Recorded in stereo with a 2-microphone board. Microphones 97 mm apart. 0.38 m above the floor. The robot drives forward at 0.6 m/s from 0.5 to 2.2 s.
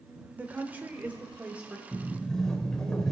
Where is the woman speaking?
20° right (ahead or behind), 0.8 m; by 1.8 s 10° right (ahead or behind), 1.2 m.